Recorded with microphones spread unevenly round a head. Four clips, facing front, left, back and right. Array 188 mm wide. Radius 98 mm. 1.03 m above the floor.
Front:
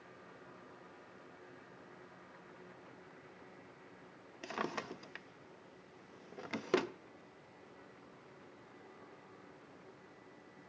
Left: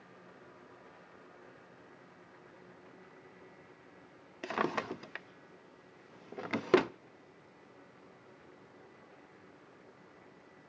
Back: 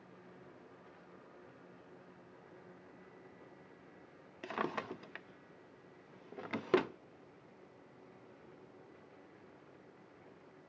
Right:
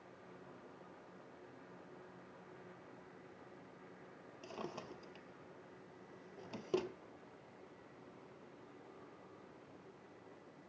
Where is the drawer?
85° left, 0.6 m.